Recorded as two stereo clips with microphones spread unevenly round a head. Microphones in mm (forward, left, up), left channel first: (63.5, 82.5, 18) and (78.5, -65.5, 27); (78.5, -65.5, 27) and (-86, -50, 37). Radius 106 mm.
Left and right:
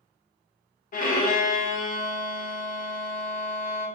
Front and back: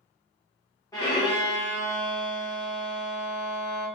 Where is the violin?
70° left, 0.7 m.